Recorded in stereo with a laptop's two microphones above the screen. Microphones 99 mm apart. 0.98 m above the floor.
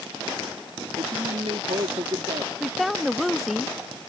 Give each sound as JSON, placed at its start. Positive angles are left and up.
{"t": 1.0, "sound": "a man speaking", "side_deg": -75}
{"t": 2.6, "sound": "a woman speaking", "side_deg": 0}